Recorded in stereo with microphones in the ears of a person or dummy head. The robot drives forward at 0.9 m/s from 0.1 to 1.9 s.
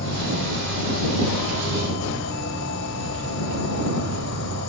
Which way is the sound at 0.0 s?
65° left (ahead or behind).